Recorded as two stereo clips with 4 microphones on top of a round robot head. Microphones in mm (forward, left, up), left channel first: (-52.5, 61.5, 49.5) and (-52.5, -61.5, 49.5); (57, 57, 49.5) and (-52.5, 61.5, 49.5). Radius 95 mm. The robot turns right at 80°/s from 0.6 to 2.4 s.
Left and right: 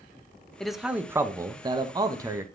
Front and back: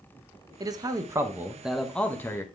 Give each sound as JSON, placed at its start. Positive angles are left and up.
{"t": 0.6, "sound": "a man speaking", "azimuth_deg": 175, "distance_m": 1.1}